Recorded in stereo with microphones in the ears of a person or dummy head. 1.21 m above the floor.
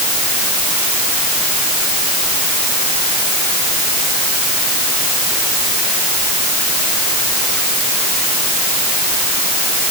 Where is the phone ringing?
No phone ringing in this recording.